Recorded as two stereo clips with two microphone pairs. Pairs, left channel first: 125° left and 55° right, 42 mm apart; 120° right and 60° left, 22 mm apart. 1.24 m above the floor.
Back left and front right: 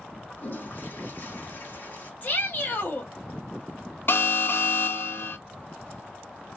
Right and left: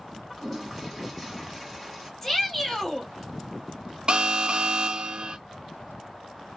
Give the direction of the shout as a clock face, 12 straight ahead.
6 o'clock.